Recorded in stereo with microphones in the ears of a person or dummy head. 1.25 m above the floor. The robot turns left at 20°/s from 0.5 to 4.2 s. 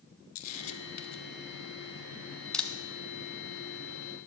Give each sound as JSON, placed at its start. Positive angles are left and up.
{"t": 0.3, "sound": "a camera shutter", "side_deg": 45, "distance_m": 0.9}